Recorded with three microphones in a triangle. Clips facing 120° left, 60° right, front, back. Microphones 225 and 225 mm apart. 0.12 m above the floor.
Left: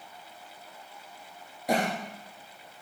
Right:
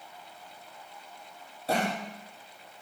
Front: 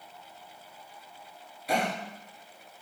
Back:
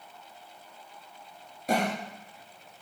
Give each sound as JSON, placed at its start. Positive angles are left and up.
{"t": 1.7, "sound": "a cough", "azimuth_deg": -175, "distance_m": 1.8}